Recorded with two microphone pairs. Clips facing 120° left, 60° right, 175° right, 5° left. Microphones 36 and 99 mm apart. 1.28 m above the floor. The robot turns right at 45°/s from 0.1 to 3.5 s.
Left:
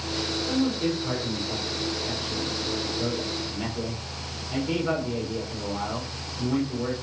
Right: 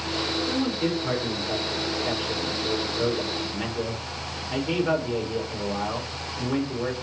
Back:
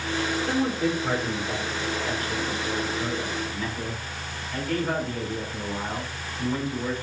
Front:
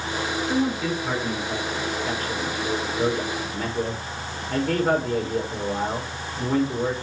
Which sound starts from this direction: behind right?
A man speaking, at 0.5 s.